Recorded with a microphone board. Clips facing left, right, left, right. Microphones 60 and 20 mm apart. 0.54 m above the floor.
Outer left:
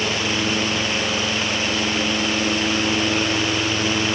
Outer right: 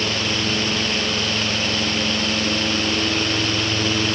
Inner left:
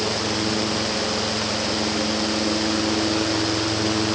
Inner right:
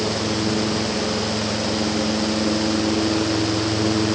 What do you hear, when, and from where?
Only background noise.